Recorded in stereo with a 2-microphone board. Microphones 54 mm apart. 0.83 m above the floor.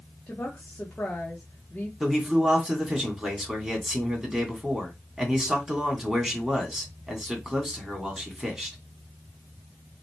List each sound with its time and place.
0.3 s a woman speaking: 25° left (ahead or behind), 1.5 m
2.0 s a man speaking: 5° right (ahead or behind), 2.5 m